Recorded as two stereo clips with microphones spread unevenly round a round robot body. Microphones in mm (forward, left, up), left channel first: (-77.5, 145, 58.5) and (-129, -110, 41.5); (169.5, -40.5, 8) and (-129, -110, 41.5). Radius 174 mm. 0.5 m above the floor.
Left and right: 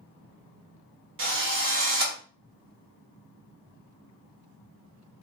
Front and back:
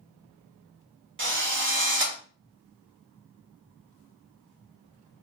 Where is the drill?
120° right, 2 m.